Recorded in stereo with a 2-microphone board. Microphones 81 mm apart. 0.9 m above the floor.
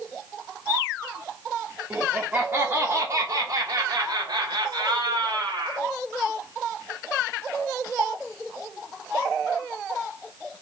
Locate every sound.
1.9 s laughter: 10° right (ahead or behind), 1.5 m; by 5.9 s 70° right (ahead or behind), 1.9 m